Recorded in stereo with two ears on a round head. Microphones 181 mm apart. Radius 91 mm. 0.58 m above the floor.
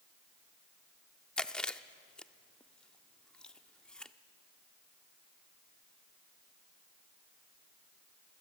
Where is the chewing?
5° left (ahead or behind), 0.5 m.